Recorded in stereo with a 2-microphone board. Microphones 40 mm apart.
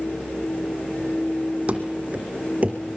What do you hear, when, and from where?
1.7 s running footsteps: 30° right (ahead or behind), 2.5 m; by 2.8 s 35° right (ahead or behind), 4 m